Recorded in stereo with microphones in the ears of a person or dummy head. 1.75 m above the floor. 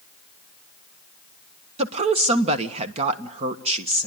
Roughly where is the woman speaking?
Right.